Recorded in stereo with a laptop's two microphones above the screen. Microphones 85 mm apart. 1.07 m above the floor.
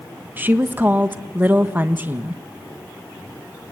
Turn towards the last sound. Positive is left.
turn(degrees=-25)  # may be behind; listen again after turning